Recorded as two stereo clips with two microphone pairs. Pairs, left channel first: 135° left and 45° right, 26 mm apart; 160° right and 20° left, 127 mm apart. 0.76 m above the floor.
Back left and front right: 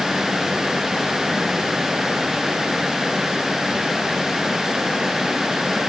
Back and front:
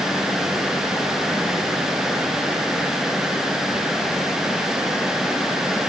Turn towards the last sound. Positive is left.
No sound to turn to.